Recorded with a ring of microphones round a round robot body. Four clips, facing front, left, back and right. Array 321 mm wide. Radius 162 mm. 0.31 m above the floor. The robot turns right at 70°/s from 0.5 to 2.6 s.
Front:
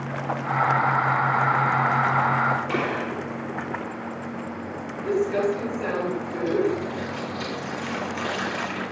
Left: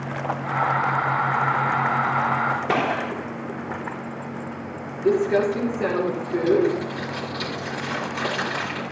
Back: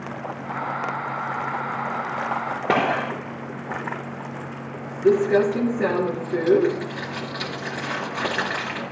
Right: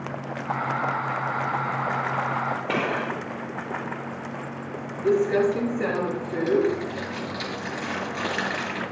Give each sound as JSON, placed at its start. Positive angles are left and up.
{"t": 2.7, "sound": "a gunshot", "azimuth_deg": 165, "distance_m": 6.0}
{"t": 5.0, "sound": "crumpling", "azimuth_deg": -170, "distance_m": 5.5}